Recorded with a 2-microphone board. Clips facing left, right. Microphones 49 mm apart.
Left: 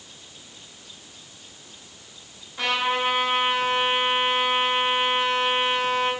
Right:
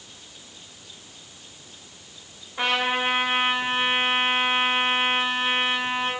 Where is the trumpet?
25° right (ahead or behind), 2.5 m.